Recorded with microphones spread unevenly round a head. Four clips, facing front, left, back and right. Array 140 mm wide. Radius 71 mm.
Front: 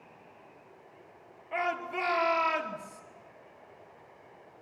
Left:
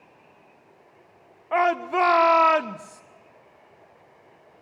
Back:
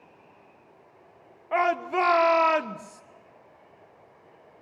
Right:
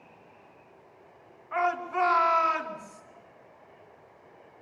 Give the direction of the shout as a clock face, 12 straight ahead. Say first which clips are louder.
Left 6 dB, back 8 dB; 8 o'clock.